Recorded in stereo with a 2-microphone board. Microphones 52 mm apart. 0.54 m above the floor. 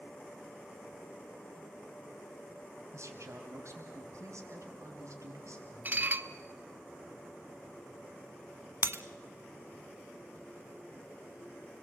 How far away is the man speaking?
About 4.5 m.